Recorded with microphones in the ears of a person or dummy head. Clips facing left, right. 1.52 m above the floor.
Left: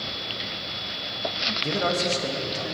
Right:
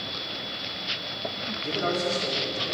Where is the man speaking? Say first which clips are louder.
Left 2 dB; 70° left (ahead or behind), 1.8 m; by 2.8 s 85° left, 3 m.